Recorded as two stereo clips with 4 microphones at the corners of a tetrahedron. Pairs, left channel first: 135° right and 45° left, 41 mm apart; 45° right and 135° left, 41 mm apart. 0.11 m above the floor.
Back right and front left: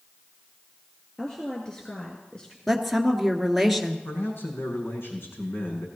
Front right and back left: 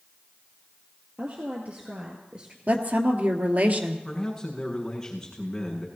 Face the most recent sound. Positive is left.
turn(degrees=-120)